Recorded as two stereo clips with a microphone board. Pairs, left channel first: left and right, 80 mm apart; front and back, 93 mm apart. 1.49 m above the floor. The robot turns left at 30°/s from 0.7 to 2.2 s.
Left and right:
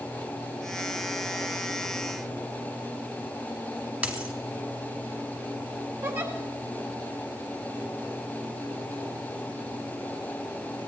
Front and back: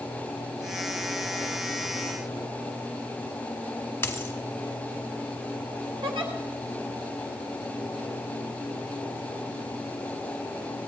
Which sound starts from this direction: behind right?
A giggle, at 6.0 s.